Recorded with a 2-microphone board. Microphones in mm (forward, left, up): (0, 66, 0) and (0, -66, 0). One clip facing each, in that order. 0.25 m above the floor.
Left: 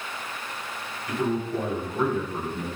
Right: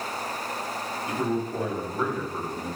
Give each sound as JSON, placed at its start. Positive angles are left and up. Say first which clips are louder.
{"t": 1.1, "sound": "a man speaking", "louder": "left 2 dB", "side_deg": -25, "distance_m": 1.7}